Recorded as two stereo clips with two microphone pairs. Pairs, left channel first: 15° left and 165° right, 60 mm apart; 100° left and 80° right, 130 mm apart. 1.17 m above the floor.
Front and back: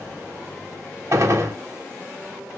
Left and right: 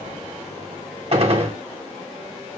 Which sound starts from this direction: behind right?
A gunshot, at 1.1 s.